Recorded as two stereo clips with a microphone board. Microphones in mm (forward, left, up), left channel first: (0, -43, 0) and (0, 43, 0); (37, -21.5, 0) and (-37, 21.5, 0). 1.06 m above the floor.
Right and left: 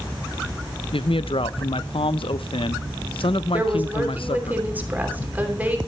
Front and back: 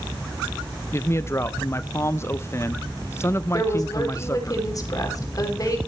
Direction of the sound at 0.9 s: 90° right.